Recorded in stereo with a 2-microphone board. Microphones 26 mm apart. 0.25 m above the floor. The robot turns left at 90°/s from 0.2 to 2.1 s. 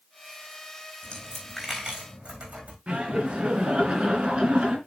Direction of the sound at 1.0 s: 45° left (ahead or behind).